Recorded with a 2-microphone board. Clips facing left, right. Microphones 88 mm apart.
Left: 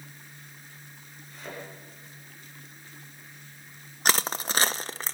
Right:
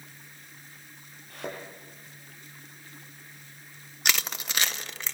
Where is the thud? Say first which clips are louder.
Right 4 dB; 65° right (ahead or behind), 8 m.